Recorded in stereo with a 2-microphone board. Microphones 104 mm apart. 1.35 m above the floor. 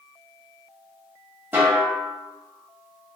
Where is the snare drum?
20° right (ahead or behind), 1.2 m.